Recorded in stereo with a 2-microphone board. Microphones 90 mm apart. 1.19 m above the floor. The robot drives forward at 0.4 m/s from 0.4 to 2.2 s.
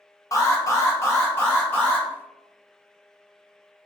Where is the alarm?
40° left (ahead or behind), 0.8 m; by 2.1 s 20° left (ahead or behind), 1.3 m.